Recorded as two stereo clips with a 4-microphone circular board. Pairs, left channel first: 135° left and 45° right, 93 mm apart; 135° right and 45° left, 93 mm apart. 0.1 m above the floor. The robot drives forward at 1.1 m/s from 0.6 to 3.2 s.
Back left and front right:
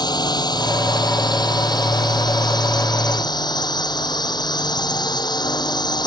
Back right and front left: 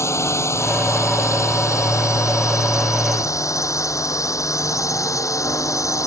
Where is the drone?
170° left.